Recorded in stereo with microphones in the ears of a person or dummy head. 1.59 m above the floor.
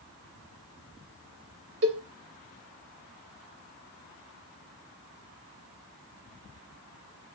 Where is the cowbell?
70° right (ahead or behind), 1.7 m.